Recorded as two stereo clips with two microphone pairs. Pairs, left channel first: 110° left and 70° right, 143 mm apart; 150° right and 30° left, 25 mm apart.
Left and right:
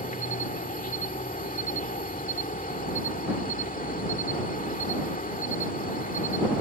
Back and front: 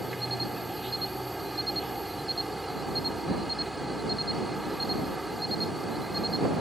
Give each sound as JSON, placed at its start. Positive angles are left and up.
{"t": 0.0, "sound": "an insect", "azimuth_deg": 115}